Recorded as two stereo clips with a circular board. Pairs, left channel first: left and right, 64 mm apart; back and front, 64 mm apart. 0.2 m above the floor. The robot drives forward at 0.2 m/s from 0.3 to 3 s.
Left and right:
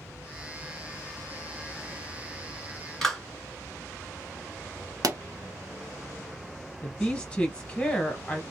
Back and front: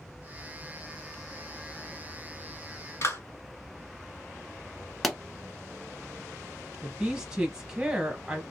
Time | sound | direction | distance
3.0 | a clap | 170° left | 1.5 m
5.0 | a pop | 90° right | 0.5 m
6.8 | a woman speaking | 55° left | 1.0 m